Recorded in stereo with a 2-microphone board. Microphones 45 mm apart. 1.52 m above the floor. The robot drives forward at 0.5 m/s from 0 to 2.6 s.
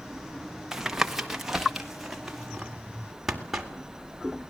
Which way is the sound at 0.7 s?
10° right (ahead or behind).